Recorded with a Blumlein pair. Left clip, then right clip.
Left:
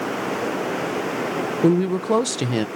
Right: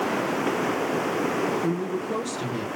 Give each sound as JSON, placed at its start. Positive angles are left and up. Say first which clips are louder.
{"t": 1.6, "sound": "a woman speaking", "louder": "left 8 dB", "azimuth_deg": 35, "distance_m": 0.8}